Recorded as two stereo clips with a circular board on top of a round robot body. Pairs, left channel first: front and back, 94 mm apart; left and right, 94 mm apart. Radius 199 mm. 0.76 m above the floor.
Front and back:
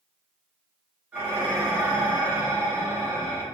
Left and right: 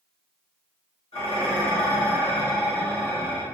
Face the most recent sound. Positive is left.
turn(degrees=105)